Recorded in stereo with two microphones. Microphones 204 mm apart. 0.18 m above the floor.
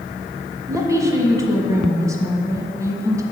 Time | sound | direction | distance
0.7 | a woman speaking | 15° right (ahead or behind) | 1.3 m